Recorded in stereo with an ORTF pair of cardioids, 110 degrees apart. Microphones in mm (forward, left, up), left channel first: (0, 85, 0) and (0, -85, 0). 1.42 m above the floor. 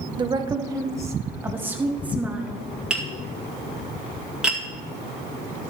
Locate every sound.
0.2 s a woman speaking: 25° right, 1.2 m; by 2.6 s 5° right, 2.5 m
2.9 s tapping: 5° right, 2 m